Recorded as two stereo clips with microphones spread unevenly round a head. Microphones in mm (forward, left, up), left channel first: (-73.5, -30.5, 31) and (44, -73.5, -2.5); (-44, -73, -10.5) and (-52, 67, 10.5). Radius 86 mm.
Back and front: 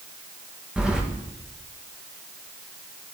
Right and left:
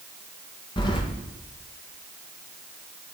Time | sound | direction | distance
0.8 | keys jangling | 125° right | 1.0 m